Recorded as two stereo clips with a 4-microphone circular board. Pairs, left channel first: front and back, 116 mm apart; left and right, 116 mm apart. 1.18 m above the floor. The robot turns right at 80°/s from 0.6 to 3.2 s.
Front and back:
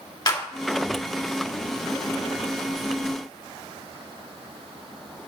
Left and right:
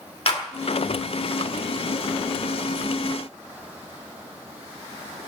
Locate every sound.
0.3 s a clap: 50° left, 2 m